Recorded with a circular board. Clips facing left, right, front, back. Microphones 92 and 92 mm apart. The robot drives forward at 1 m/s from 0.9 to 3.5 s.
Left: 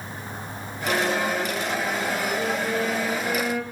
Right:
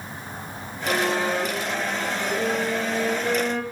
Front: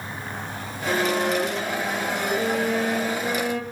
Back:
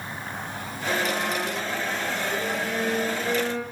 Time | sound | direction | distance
0.9 | a violin | 5° right | 8.5 m